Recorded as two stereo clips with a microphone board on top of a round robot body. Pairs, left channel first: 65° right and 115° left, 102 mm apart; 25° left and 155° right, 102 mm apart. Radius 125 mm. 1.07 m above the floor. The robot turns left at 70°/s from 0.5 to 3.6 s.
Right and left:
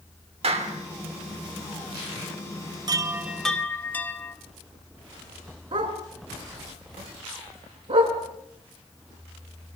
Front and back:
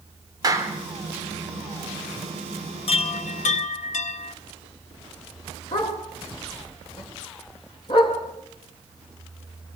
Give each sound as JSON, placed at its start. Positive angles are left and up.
{"t": 0.4, "sound": "a clap", "azimuth_deg": 145, "distance_m": 2.5}
{"t": 2.9, "sound": "a chime", "azimuth_deg": 60, "distance_m": 0.8}
{"t": 5.7, "sound": "a dog barking", "azimuth_deg": 65, "distance_m": 4.0}